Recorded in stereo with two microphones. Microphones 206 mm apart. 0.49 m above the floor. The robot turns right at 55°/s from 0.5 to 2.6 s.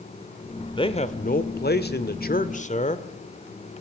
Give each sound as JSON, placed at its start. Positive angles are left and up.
{"t": 0.8, "sound": "a man speaking", "azimuth_deg": 30, "distance_m": 1.5}